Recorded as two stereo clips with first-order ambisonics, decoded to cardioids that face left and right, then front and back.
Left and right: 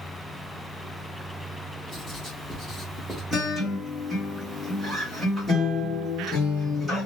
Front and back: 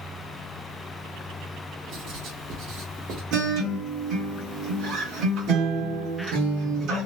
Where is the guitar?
175° right, 1.3 m.